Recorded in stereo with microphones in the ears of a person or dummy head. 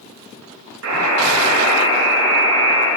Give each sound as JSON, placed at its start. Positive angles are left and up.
{"t": 0.8, "sound": "a buzzer", "side_deg": -70, "distance_m": 6.0}